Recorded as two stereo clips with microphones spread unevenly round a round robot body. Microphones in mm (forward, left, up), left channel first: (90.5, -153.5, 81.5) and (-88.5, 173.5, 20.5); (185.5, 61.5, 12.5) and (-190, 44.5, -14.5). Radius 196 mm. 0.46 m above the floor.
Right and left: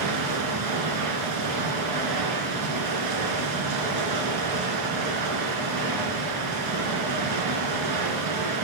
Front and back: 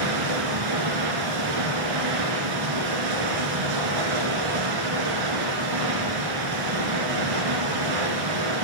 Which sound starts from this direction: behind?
Running water, at 0.0 s.